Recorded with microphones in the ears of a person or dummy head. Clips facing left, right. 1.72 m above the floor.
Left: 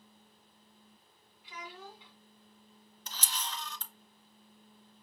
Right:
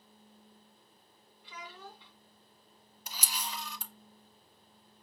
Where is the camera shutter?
10° right (ahead or behind), 0.6 m.